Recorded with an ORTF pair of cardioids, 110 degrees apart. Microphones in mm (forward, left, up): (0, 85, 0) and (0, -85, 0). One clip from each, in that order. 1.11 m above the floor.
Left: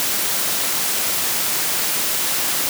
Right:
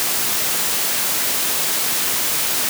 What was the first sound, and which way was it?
Only background noise.